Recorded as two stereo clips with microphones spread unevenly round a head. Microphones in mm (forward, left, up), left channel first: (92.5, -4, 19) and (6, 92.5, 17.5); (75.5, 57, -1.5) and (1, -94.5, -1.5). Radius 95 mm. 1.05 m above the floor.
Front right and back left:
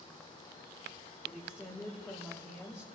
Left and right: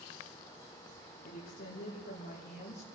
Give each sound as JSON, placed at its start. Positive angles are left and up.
{"t": 1.2, "sound": "a woman speaking", "azimuth_deg": 30, "distance_m": 5.0}